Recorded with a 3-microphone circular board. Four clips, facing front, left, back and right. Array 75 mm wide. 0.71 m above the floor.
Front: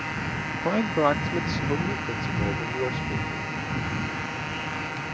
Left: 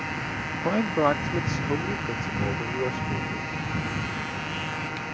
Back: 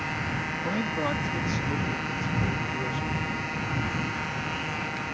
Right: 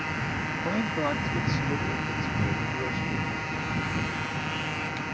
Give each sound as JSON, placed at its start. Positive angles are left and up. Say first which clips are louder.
{"t": 0.5, "sound": "a man speaking", "louder": "left 6 dB, front 7 dB", "azimuth_deg": 45}